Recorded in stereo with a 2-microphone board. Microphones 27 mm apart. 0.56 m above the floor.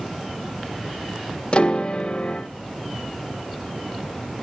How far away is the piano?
About 1.7 m.